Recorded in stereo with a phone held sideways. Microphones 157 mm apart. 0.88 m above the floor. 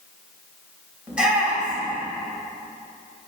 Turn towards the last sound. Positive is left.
turn(degrees=-5)  # may be behind; listen again after turning